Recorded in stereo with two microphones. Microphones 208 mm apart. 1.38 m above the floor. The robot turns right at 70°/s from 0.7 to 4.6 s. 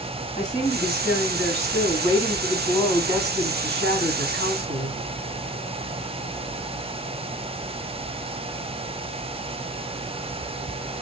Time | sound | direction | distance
0.4 | a woman speaking | 35° left | 4 m